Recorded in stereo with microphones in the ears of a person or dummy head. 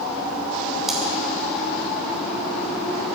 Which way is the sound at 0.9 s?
5° left (ahead or behind).